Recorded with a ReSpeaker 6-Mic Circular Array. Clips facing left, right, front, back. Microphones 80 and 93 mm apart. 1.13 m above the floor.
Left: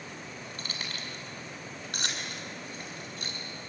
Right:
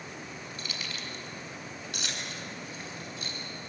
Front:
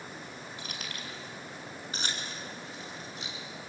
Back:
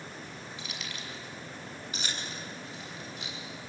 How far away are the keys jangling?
About 5.5 m.